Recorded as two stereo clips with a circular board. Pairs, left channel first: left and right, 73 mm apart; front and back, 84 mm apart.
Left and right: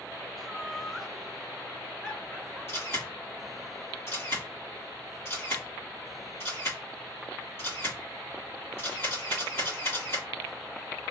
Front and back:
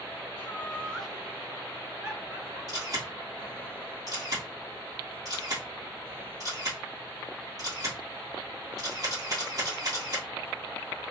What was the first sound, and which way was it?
Laughter, 5° right.